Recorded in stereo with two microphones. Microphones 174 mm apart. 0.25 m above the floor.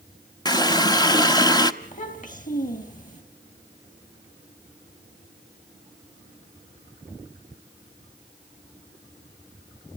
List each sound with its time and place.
0.5 s a running tap: 25° left (ahead or behind), 0.9 m
1.8 s a child speaking: 50° left (ahead or behind), 3.5 m